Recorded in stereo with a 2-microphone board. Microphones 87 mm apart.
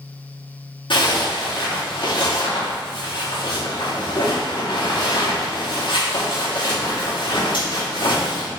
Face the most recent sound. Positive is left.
turn(degrees=75)  # may be behind; listen again after turning